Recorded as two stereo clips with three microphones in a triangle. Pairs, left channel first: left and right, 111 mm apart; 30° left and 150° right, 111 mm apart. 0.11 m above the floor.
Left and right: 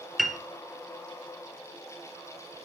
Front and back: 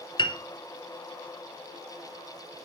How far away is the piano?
About 1.1 m.